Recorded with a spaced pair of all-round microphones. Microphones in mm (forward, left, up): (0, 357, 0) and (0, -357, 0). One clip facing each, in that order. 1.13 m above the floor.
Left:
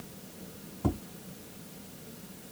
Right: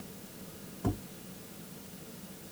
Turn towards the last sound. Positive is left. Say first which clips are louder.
# left 3 dB
turn(degrees=20)  # may be behind; listen again after turning